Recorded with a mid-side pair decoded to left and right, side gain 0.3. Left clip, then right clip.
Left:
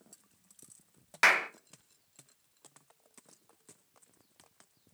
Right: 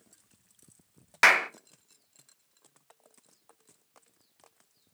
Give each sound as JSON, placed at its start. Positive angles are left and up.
{"t": 1.2, "sound": "a clap", "azimuth_deg": -45, "distance_m": 0.5}